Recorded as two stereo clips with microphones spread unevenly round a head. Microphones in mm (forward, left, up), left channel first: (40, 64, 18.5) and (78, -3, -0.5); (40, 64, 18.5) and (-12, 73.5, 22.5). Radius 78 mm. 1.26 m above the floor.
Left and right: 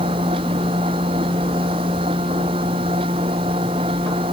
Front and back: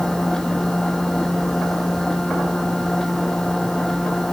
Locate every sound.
0.0 s a machine running: 95° right